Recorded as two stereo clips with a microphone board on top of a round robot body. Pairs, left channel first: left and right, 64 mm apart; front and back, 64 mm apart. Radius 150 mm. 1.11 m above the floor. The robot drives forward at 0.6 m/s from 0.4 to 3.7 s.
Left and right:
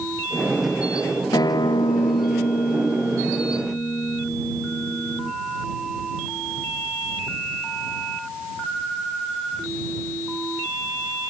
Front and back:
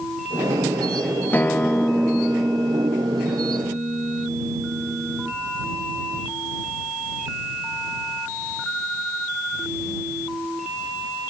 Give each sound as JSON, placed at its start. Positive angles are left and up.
{"t": 1.3, "sound": "a guitar", "azimuth_deg": 65}